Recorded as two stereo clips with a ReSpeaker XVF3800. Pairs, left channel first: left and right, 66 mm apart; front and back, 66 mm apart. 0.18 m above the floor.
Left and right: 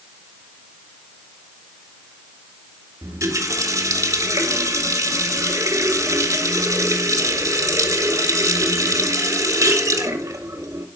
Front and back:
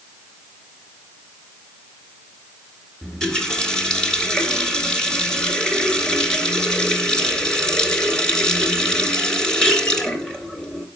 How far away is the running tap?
About 2.0 m.